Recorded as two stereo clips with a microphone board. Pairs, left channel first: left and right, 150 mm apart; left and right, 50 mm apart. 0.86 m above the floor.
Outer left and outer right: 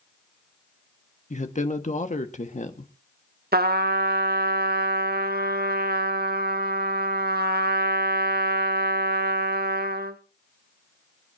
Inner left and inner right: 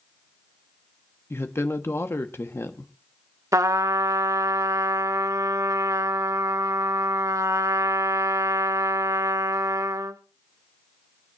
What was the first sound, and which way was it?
A woman speaking, 50° left (ahead or behind).